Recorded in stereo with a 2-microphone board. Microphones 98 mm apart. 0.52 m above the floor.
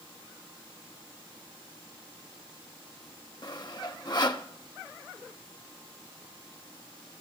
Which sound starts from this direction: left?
Sawing, at 3.4 s.